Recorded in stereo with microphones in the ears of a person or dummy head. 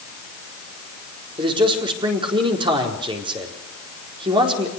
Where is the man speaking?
20° right (ahead or behind), 4 m.